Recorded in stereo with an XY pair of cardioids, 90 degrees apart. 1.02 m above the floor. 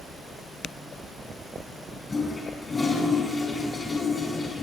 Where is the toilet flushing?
25° left, 7 m.